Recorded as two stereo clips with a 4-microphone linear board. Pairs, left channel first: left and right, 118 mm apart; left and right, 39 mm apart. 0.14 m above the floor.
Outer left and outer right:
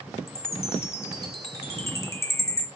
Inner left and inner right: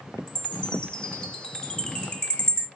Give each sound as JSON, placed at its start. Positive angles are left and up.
{"t": 0.3, "sound": "a chime", "side_deg": 25, "distance_m": 0.9}